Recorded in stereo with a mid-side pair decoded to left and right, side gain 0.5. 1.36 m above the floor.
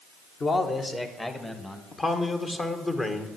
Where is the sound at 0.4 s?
40° left, 1.7 m; by 1.8 s 15° left, 1.9 m.